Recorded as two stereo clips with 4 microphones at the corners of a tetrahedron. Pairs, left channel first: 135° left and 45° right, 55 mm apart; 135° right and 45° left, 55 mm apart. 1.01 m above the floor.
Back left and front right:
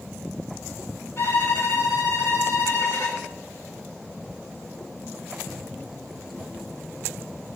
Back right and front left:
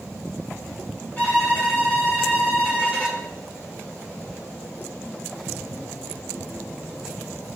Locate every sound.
1.2 s a violin: 165° left, 1.9 m